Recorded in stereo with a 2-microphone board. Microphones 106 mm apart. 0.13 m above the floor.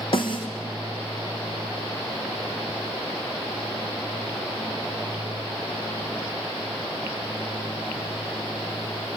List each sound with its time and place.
0.1 s a snare drum: 50° left (ahead or behind), 3 m